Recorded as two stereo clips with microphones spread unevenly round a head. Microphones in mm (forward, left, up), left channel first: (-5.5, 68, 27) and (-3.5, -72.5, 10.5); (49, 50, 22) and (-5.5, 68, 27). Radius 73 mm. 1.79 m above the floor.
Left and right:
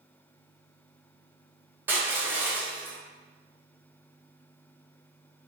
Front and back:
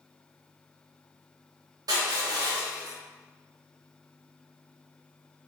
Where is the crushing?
170° right, 1.1 m.